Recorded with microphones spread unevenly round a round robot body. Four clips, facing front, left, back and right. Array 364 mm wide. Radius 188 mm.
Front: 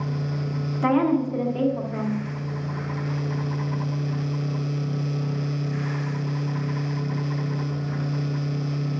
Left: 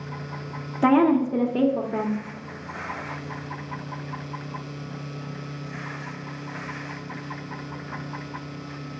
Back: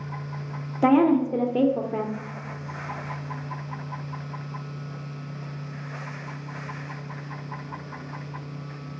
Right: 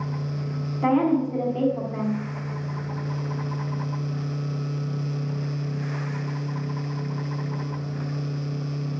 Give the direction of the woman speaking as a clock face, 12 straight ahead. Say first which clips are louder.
Left 3 dB, back 2 dB; 7 o'clock.